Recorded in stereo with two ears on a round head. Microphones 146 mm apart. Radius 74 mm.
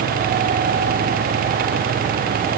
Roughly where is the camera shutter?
I don't hear a camera shutter.